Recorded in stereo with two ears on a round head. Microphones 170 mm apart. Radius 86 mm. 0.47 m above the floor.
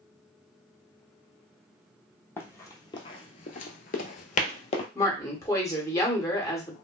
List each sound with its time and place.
2.4 s running footsteps: 15° left (ahead or behind), 0.9 m; by 4.8 s 35° left (ahead or behind), 0.9 m
5.0 s a woman speaking: 15° left (ahead or behind), 1.0 m